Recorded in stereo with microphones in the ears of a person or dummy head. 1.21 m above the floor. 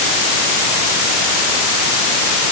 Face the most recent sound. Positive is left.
No sound to turn to.